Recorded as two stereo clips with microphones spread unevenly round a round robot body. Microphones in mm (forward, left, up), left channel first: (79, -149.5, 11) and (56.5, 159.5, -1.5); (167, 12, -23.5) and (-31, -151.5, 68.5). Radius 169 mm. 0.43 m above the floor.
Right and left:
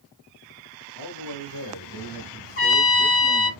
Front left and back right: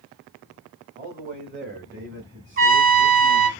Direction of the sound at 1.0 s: 75° right.